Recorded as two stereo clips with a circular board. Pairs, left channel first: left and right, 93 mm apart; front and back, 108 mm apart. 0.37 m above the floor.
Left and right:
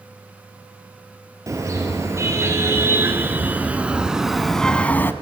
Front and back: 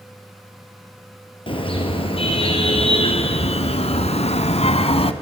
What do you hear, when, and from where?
1.5 s a car horn: 35° right, 4.5 m; by 5.1 s 25° left, 1.5 m